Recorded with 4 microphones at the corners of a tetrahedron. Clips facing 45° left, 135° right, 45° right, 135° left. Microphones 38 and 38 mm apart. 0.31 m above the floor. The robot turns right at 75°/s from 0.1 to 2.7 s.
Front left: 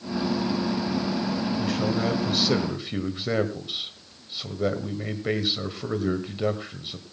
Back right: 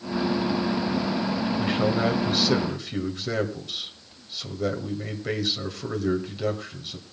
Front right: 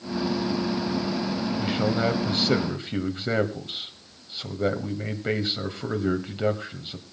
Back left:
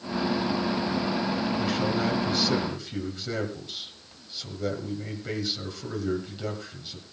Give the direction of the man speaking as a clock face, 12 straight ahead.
4 o'clock.